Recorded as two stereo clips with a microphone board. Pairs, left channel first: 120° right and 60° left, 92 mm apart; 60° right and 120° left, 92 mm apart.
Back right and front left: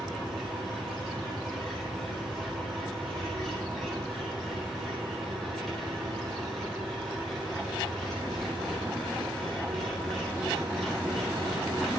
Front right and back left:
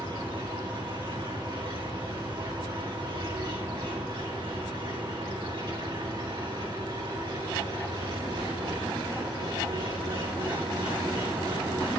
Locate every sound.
0.0 s an engine running: 155° left, 4.5 m